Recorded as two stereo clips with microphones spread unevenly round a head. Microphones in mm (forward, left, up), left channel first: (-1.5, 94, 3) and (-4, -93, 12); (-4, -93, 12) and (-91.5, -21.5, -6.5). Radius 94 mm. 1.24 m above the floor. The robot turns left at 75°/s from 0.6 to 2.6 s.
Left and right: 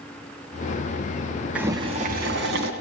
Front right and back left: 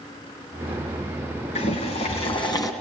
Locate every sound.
1.6 s boiling: 10° right, 3 m; by 2.7 s 85° right, 3 m